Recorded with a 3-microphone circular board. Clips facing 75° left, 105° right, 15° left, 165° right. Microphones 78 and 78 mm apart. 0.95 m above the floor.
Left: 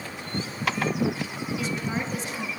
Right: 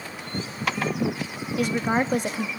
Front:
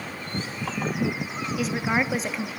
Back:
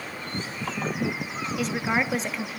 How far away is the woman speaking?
About 1.2 m.